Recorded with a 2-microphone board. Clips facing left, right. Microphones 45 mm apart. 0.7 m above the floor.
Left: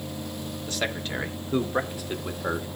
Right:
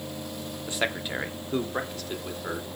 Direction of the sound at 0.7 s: 20° right (ahead or behind).